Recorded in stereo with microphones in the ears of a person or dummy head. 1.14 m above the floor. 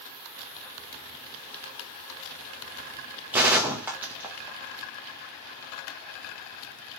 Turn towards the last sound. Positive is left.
turn(degrees=-5)  # may be behind; listen again after turning